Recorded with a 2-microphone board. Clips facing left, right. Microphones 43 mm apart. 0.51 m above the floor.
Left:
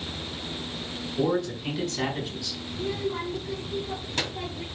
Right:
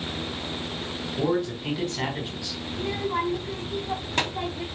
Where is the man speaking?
10° right (ahead or behind), 4 m.